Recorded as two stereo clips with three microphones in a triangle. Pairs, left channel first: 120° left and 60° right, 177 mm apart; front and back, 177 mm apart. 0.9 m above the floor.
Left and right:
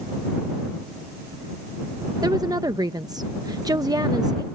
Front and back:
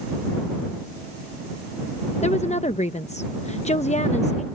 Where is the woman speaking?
5° right.